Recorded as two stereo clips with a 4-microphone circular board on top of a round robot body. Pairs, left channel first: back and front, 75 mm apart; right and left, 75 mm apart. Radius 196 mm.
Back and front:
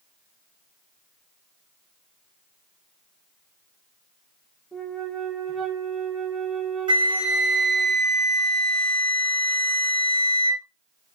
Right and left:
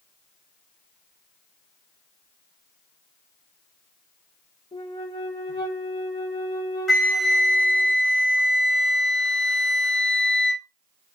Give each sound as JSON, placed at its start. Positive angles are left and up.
{"t": 4.7, "sound": "a flute", "azimuth_deg": -85, "distance_m": 0.9}
{"t": 6.9, "sound": "a flute", "azimuth_deg": -5, "distance_m": 0.6}